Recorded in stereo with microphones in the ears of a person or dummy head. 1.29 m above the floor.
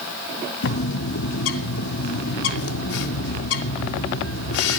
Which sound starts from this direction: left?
A bird, at 0.6 s.